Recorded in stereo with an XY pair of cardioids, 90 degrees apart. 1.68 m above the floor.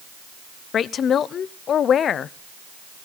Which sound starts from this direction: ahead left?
A woman speaking, at 0.7 s.